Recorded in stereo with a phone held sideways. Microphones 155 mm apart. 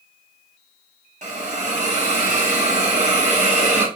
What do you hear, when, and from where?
1.2 s a hiss: 50° right (ahead or behind), 1.8 m